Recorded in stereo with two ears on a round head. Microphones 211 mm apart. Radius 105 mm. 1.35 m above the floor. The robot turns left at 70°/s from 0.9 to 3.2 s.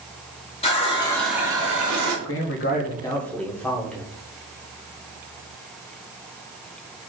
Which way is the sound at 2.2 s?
70° left.